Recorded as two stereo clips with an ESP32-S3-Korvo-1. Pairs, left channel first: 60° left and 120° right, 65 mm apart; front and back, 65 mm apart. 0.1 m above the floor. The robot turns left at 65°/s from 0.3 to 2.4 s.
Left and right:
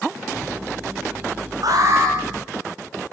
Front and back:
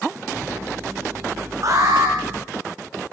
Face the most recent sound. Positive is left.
turn(degrees=170)